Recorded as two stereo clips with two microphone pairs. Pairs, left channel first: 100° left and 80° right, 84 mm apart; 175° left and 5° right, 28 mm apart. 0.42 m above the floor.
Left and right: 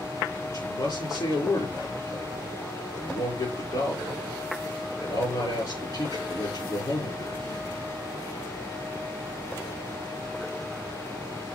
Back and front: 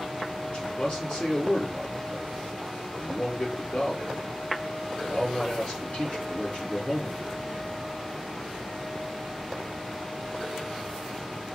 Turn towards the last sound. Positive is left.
turn(degrees=135)